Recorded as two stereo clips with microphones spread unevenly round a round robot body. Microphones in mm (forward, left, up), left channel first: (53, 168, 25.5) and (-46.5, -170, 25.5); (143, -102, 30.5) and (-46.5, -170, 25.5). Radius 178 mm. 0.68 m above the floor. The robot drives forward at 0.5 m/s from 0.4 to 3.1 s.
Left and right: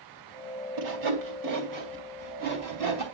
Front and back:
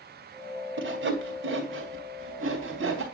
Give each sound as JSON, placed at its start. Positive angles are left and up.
{"t": 0.8, "sound": "sawing", "azimuth_deg": -135, "distance_m": 2.5}